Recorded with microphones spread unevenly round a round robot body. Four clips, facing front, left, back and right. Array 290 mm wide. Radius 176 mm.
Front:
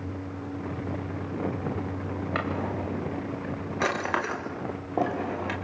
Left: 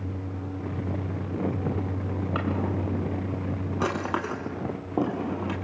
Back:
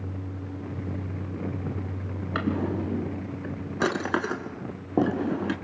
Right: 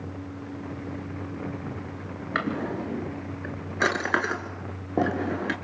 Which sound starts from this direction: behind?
A drawer, at 2.4 s.